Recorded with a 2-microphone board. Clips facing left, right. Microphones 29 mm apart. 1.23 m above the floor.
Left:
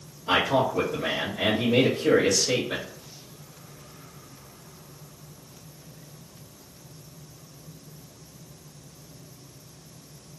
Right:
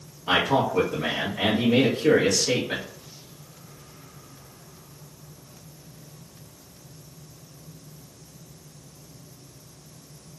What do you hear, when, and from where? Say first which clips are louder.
0.3 s a man speaking: right 1 dB; 50° right (ahead or behind), 0.8 m